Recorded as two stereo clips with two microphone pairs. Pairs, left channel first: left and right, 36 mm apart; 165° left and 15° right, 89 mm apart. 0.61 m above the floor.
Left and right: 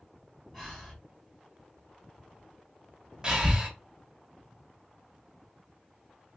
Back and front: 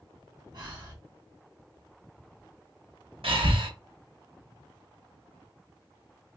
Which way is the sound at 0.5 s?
5° right.